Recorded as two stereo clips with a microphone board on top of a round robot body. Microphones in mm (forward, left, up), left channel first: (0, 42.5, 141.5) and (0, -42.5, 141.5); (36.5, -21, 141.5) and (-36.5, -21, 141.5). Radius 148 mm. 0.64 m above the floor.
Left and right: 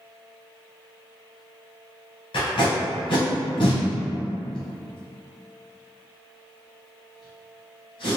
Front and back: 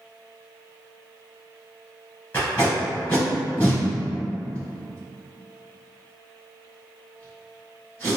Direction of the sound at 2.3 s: 65° left.